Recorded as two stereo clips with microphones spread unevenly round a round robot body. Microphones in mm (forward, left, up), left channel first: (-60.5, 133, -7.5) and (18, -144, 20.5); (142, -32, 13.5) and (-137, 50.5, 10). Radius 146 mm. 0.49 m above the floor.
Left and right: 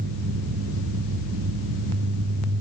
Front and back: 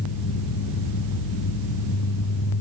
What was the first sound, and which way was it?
Only background noise.